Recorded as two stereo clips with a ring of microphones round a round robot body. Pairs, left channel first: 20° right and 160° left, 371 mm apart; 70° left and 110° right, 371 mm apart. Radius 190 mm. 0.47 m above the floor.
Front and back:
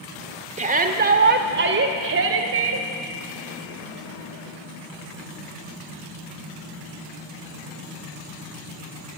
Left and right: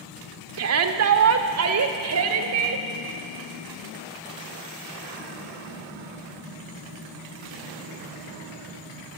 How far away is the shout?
About 1.6 m.